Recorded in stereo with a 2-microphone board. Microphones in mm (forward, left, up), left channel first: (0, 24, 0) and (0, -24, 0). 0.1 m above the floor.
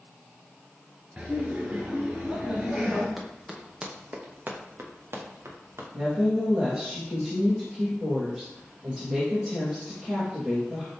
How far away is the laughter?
About 1.2 m.